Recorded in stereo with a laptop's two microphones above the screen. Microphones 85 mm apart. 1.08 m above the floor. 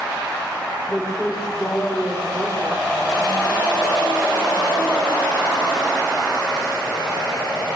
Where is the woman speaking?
10° left (ahead or behind), 3.5 m.